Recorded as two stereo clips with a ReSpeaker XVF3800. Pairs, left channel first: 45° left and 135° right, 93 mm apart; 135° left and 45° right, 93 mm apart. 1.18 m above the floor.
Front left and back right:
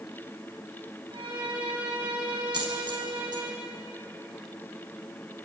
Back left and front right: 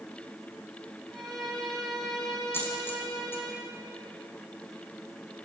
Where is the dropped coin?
160° right, 4 m.